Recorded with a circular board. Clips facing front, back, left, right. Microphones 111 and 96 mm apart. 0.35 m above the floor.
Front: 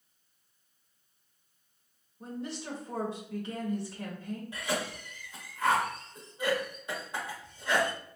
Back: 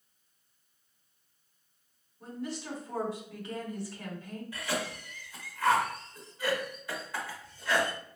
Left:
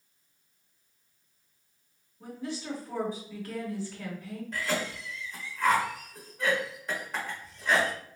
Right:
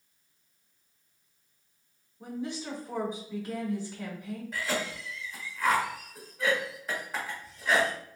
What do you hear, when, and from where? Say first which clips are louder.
2.2 s a woman speaking: even, right 1 dB; 40° right, 1.2 m
4.5 s a cough: even, left 1 dB; 10° right, 1.1 m